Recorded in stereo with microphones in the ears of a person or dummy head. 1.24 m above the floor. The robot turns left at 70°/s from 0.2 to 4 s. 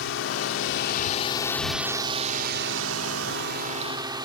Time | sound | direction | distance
0.0 | a drone | 105° left | ?